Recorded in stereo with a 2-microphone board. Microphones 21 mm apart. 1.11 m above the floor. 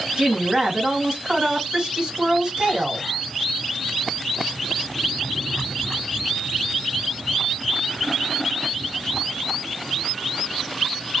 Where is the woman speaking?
45° right (ahead or behind), 1.9 m.